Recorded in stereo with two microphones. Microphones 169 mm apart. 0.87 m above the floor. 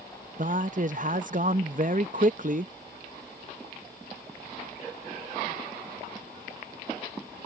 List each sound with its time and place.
0.4 s a man speaking: 50° right (ahead or behind)